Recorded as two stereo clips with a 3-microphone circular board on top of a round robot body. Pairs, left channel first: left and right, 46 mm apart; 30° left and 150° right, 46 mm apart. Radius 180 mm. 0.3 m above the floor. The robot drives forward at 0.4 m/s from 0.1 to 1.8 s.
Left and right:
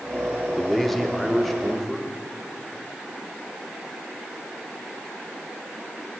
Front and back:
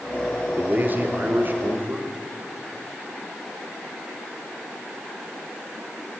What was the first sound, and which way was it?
A man speaking, 175° left.